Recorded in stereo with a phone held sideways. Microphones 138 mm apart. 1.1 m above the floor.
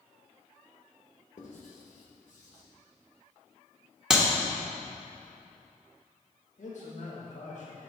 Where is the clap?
5° right (ahead or behind), 0.9 m.